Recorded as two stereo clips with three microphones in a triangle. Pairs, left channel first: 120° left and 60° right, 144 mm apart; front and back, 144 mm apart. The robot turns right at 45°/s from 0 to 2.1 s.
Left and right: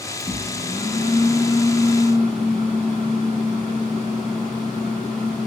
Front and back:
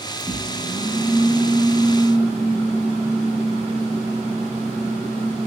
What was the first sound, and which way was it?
A microwave, 115° left.